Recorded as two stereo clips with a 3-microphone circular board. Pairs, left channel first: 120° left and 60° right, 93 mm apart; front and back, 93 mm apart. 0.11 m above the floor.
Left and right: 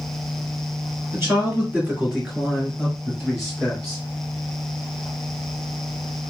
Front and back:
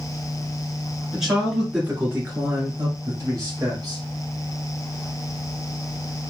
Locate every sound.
1.1 s a man speaking: 100° right, 1.8 m; by 4.0 s 160° right, 2.5 m